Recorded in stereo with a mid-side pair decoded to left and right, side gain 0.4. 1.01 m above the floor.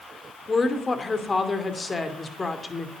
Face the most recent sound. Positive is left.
turn(degrees=25)